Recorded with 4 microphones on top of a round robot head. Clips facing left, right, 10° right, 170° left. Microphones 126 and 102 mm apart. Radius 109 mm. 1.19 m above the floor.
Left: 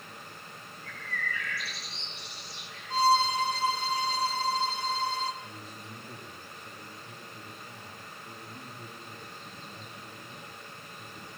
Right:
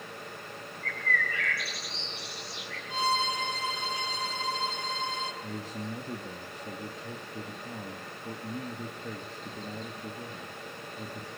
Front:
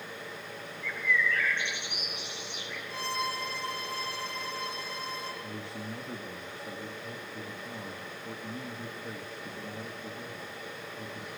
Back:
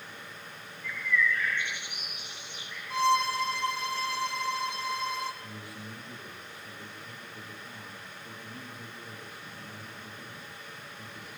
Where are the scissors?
No scissors in this recording.